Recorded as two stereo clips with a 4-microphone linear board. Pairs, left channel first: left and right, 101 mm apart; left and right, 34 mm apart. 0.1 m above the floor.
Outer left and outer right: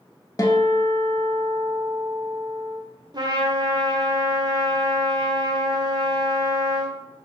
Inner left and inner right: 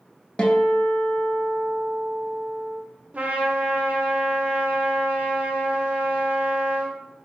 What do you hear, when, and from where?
0.4 s a guitar: 35° left (ahead or behind), 0.5 m
3.1 s a trumpet: 45° right (ahead or behind), 0.7 m